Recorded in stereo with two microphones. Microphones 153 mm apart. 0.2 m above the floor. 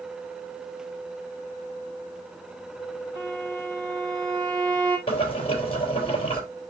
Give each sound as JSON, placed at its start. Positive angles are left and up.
{"t": 3.1, "sound": "a violin", "side_deg": -25, "distance_m": 4.5}
{"t": 5.1, "sound": "boiling", "side_deg": 35, "distance_m": 4.0}